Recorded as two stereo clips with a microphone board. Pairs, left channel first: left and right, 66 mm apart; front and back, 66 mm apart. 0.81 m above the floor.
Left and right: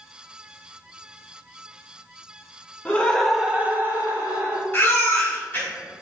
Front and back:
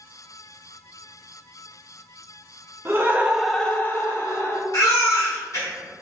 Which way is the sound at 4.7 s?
35° left.